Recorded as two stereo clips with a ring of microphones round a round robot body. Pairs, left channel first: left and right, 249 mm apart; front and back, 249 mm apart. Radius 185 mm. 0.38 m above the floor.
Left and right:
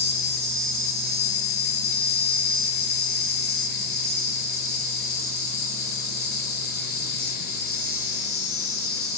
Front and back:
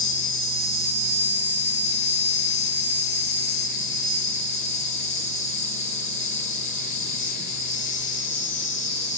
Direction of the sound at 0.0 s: 60° left.